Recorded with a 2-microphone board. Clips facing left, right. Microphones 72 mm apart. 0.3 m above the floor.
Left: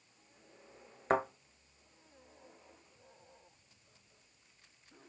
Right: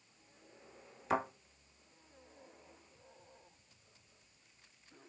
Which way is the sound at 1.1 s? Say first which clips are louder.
Left 3 dB; 45° left (ahead or behind).